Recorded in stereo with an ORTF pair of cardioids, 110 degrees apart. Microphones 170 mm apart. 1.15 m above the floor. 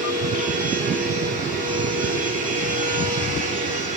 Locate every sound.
0.0 s a machine running: 50° right, 2 m